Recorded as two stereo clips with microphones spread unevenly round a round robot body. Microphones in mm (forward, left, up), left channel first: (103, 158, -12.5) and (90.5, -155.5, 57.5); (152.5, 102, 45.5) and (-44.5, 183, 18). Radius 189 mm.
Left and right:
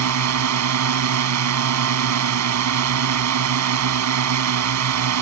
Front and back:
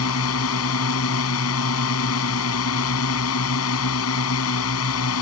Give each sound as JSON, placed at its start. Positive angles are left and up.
{"t": 0.0, "sound": "a drone", "azimuth_deg": -60}